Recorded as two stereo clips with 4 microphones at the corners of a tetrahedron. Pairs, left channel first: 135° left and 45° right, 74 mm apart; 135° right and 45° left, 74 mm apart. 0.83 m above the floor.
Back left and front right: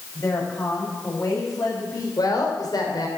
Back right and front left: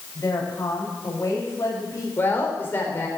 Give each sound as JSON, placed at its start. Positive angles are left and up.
{"t": 0.1, "sound": "a woman speaking", "azimuth_deg": 175, "distance_m": 5.5}
{"t": 2.2, "sound": "a woman speaking", "azimuth_deg": 165, "distance_m": 3.5}